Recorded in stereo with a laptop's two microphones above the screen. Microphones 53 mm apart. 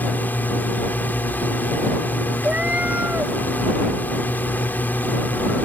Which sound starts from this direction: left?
A drone, at 0.0 s.